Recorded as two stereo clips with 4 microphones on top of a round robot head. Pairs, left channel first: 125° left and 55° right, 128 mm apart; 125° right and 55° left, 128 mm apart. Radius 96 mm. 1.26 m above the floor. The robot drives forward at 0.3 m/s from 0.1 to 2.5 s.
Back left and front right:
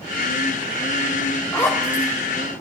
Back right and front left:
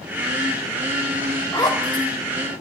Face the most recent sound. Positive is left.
turn(degrees=-175)